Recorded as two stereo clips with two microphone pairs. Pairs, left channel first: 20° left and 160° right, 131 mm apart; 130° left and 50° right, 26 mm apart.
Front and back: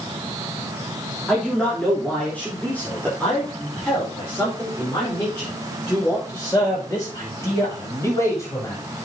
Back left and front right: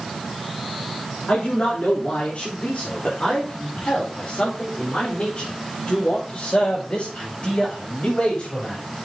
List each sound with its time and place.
1.3 s a man speaking: 105° left, 3.5 m; by 8.8 s 90° left, 8 m